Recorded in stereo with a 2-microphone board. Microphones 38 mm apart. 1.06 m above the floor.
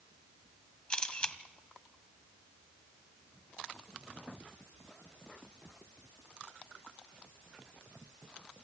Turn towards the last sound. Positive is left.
turn(degrees=25)  # may be behind; listen again after turning